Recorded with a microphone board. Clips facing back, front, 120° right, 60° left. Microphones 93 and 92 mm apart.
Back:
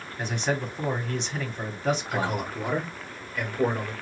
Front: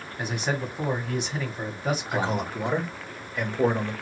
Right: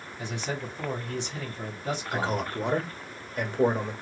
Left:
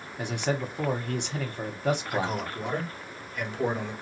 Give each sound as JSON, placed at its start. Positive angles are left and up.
{"t": 0.2, "sound": "a man speaking", "azimuth_deg": 85, "distance_m": 1.3}
{"t": 2.1, "sound": "a man speaking", "azimuth_deg": -70, "distance_m": 1.3}